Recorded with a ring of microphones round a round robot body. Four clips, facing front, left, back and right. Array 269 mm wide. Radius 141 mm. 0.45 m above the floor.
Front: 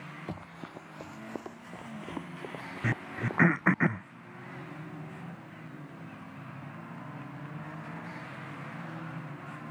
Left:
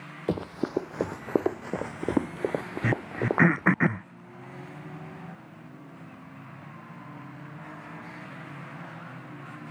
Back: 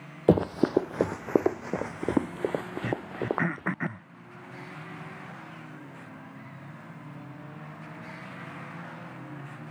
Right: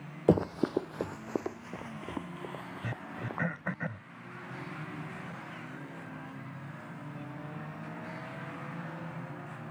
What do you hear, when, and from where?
0.3 s running footsteps: 160° right; by 3.8 s 125° left
2.8 s throat clearing: 70° left